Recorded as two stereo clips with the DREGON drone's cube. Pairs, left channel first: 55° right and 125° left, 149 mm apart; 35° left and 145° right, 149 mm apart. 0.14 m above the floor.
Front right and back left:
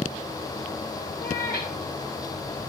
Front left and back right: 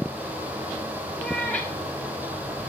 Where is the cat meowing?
45° right, 3 m.